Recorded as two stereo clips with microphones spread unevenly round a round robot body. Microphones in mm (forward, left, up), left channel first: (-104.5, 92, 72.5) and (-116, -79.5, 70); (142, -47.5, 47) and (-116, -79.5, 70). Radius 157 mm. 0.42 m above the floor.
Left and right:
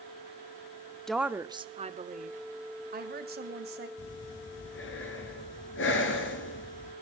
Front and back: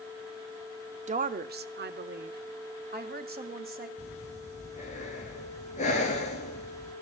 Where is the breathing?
75° left, 1.6 m.